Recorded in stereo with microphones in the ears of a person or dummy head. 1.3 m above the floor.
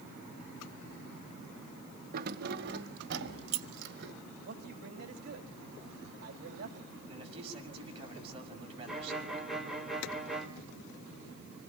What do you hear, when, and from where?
2.1 s keys jangling: 50° right (ahead or behind), 0.9 m; by 4.1 s 70° right (ahead or behind), 3.5 m
4.5 s a man speaking: 60° right (ahead or behind), 3 m
7.1 s a man speaking: 35° right (ahead or behind), 6.5 m
8.9 s a violin: 5° right (ahead or behind), 4 m